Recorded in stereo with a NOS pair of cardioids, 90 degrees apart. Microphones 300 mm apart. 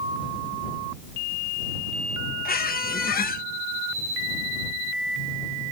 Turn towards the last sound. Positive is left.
turn(degrees=30)